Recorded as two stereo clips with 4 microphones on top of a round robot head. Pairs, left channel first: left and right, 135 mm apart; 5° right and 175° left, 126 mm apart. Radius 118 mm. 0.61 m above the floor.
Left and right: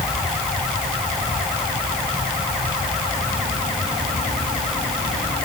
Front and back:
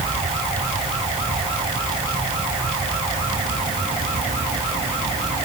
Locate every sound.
Only background noise.